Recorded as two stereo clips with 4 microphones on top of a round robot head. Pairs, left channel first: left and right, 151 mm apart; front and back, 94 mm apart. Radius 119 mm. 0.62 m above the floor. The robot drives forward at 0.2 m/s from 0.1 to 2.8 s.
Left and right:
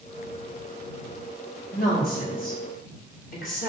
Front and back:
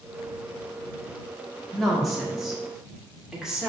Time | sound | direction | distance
1.7 | a woman speaking | 90° left | 1.5 m